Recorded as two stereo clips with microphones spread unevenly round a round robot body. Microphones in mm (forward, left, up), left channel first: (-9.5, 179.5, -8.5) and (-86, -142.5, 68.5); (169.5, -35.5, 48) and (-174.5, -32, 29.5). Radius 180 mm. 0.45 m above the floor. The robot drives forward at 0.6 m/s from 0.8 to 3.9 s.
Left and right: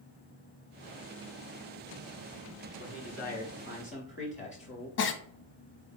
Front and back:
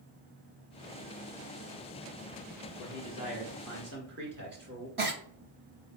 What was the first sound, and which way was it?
A man speaking, 105° left.